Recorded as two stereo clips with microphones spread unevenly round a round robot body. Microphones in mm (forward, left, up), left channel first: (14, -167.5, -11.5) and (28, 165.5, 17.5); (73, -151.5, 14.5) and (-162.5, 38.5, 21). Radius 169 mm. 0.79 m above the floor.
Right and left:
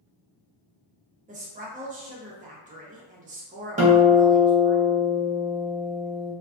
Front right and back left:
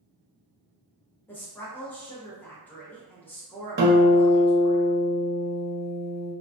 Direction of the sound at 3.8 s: 145° left.